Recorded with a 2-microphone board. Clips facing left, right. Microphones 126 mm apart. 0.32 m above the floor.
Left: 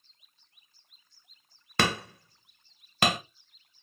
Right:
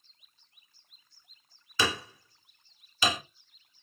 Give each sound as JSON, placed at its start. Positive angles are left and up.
{"t": 1.8, "sound": "hammering", "side_deg": 75, "distance_m": 1.3}